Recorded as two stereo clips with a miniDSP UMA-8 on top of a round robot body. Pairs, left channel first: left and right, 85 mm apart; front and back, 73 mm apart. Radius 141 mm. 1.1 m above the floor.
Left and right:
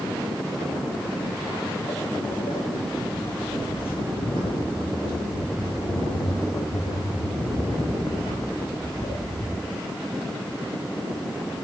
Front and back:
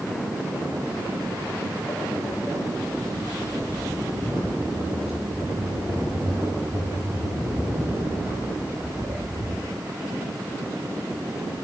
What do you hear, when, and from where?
1.0 s footsteps: 65° left, 3 m; by 9.4 s 115° left, 7 m